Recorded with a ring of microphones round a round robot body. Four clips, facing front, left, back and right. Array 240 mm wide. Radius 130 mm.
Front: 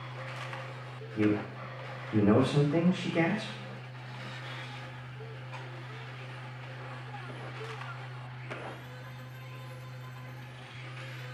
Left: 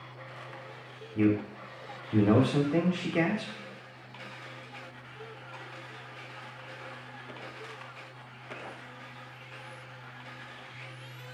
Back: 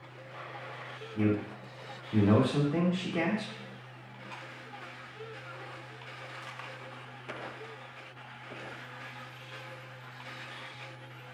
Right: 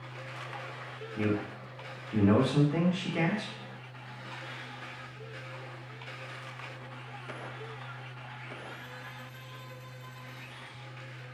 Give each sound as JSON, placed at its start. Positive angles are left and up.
{"t": 1.1, "sound": "a man speaking", "azimuth_deg": 85, "distance_m": 0.9}